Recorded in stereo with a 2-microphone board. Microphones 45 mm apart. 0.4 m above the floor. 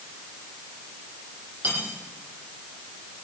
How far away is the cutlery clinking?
About 9 m.